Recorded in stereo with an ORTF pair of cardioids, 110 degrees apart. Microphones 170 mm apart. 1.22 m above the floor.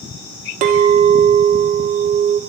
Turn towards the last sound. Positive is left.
turn(degrees=-50)